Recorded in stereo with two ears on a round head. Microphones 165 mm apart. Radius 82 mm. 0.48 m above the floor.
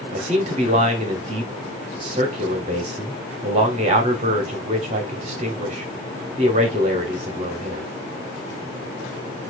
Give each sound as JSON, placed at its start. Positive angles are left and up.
{"t": 0.1, "sound": "a man speaking", "side_deg": -35, "distance_m": 1.2}